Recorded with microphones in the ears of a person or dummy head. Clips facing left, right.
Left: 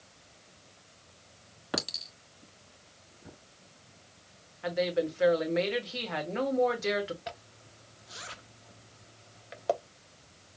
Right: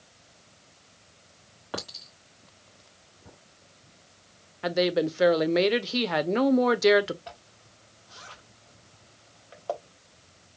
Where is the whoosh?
No whoosh in this recording.